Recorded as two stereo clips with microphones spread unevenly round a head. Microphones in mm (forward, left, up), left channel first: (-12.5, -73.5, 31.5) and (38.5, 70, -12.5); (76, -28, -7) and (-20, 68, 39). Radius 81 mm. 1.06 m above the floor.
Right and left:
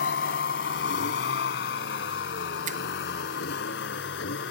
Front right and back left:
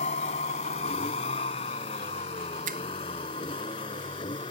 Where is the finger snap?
100° left.